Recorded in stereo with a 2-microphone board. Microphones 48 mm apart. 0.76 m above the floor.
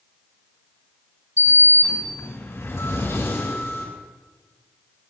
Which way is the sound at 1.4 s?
75° left (ahead or behind).